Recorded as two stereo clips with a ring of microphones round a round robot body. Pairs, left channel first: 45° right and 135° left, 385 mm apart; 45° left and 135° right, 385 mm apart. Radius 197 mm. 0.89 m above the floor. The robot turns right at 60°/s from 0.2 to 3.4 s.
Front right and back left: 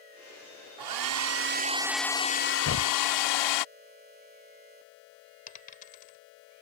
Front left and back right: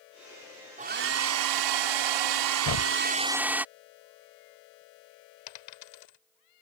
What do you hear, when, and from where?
0.8 s a hair dryer: 155° left; by 3.6 s 50° right
2.6 s a thud: 10° left; by 3.0 s 25° left
5.5 s a dropped coin: 25° left